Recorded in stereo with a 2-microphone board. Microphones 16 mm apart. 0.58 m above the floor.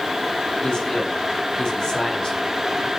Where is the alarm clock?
I don't hear an alarm clock.